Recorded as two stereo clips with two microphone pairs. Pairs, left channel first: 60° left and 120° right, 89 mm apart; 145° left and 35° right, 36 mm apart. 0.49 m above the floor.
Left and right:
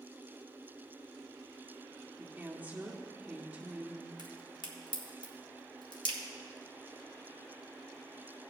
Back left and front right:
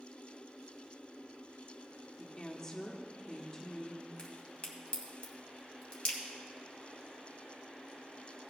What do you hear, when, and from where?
2.2 s a woman speaking: 165° right, 1.3 m
4.2 s a crack: 80° left, 2 m